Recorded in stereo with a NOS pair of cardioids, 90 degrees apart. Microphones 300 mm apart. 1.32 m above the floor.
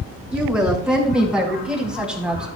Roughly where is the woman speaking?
Ahead.